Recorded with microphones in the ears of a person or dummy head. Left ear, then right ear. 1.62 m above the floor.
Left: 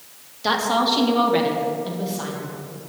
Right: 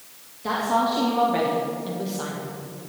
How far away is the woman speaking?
About 1.9 m.